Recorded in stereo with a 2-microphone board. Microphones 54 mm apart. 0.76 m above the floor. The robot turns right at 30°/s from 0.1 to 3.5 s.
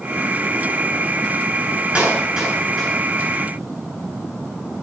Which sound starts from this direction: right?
A clap, at 1.9 s.